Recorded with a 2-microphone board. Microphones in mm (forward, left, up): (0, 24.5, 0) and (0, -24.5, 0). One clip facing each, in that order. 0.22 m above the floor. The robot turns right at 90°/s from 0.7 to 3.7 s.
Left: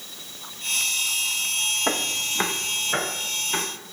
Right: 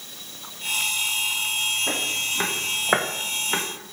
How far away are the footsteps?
About 0.8 m.